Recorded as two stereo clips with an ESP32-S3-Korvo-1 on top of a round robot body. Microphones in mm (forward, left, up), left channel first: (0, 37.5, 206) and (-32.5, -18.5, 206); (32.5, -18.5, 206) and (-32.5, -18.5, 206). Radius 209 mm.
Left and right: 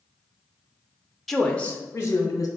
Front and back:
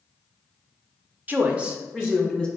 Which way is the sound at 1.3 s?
145° left.